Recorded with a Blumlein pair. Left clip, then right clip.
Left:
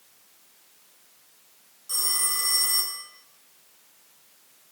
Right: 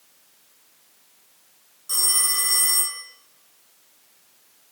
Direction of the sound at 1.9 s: 15° right.